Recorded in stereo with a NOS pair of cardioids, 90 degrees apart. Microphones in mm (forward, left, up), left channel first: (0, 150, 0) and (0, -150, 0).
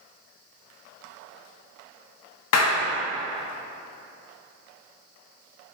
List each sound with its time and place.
2.5 s a clap: 60° left, 0.7 m